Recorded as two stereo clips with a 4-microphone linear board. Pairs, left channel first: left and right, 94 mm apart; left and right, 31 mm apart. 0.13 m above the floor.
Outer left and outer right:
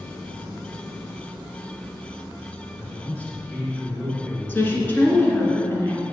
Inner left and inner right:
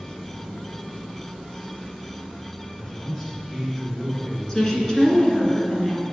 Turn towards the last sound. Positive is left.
turn(degrees=20)  # may be behind; listen again after turning